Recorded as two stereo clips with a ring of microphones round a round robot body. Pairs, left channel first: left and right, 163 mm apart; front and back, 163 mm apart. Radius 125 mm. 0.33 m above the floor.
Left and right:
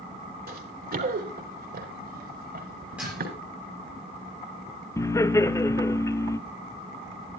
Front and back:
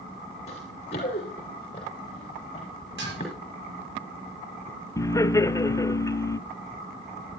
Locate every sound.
0.5 s running footsteps: 65° right, 3.5 m
3.0 s dishes clattering: 175° right, 7 m
5.0 s laughter: 45° left, 0.9 m